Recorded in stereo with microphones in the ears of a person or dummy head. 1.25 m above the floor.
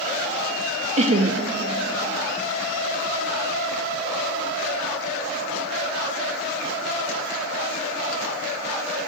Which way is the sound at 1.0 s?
35° right (ahead or behind).